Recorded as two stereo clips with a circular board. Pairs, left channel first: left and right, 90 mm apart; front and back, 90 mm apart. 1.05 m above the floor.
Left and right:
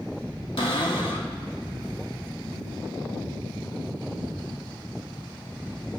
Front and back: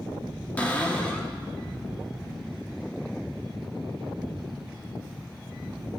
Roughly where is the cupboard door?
Left.